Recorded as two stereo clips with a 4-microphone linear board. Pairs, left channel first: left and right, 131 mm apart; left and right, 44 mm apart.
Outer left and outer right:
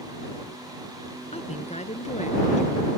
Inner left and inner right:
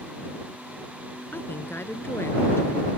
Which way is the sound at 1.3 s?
55° left (ahead or behind).